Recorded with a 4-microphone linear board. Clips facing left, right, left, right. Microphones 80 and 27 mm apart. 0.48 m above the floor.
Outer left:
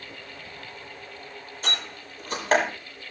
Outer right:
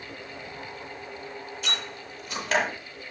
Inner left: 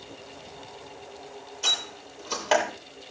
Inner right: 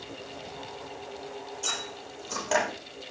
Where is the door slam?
40° left (ahead or behind), 9.5 m.